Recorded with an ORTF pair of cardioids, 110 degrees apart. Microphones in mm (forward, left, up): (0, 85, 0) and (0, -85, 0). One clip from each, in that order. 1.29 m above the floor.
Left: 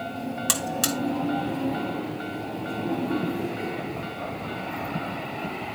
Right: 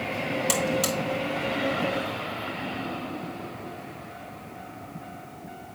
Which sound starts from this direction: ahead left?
A buzzer, at 0.5 s.